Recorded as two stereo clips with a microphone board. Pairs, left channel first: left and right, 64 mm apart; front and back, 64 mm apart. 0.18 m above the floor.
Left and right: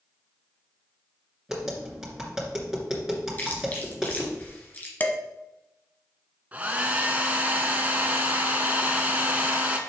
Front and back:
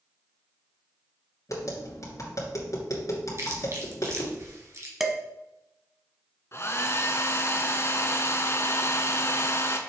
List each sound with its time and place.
1.5 s tapping: 5° right, 2.5 m
3.4 s chewing: 150° left, 2.0 m
5.0 s dishes clattering: 100° left, 0.9 m
6.5 s a hair dryer: 30° right, 0.9 m